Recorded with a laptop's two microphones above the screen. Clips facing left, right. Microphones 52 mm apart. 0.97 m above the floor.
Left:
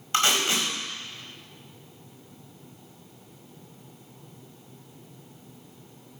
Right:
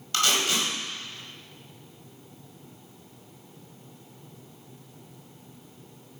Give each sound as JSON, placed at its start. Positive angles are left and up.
{"t": 0.1, "sound": "tape being pulled", "side_deg": 30, "distance_m": 5.0}